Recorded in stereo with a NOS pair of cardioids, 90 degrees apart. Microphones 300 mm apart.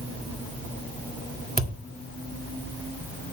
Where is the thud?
30° right, 2 m.